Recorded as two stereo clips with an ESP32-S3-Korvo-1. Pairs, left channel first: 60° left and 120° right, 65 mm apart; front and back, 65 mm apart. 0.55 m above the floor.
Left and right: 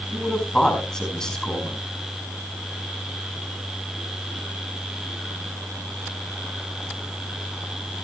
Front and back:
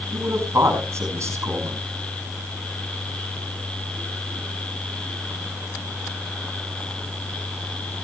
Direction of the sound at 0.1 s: 140° left.